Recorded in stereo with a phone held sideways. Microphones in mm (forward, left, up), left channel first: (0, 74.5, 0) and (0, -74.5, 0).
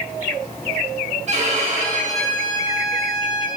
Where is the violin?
50° right (ahead or behind), 1.1 m.